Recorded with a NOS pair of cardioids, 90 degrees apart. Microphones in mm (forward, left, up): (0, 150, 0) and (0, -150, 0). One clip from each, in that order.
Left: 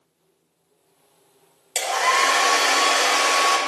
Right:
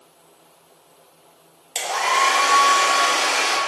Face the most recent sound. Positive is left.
turn(degrees=0)